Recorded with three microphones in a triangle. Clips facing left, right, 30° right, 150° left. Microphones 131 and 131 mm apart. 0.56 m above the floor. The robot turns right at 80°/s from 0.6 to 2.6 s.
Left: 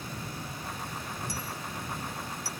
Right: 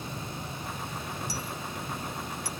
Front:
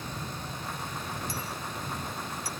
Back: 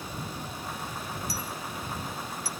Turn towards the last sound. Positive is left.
turn(degrees=-145)